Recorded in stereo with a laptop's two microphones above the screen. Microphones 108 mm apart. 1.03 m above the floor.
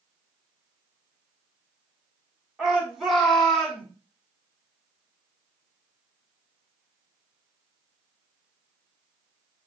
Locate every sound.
2.6 s a shout: 5° right (ahead or behind), 3.5 m; by 3.9 s 10° left (ahead or behind), 3.5 m